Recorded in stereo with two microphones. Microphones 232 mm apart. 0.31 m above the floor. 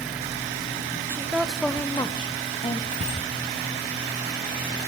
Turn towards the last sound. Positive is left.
turn(degrees=-65)  # may be behind; listen again after turning